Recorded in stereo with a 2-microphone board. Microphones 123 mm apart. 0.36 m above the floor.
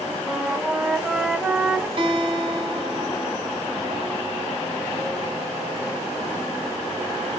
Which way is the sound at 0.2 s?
10° right (ahead or behind).